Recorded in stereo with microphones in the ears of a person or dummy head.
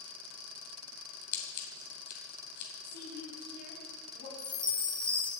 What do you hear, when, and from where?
1.3 s scissors: 50° left (ahead or behind), 3 m
2.8 s a woman speaking: 50° left (ahead or behind), 4.5 m
4.4 s a chime: 20° right (ahead or behind), 0.6 m